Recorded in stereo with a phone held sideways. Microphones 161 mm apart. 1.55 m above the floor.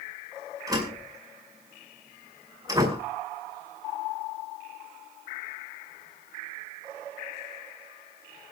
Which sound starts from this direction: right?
A door slam, at 0.7 s.